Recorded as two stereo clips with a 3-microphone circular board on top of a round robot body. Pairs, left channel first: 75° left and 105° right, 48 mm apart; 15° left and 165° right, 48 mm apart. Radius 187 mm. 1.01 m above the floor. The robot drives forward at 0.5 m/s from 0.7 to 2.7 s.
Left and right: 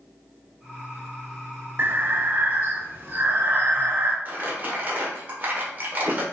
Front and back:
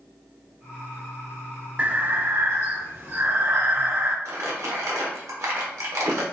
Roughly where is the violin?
No violin in this recording.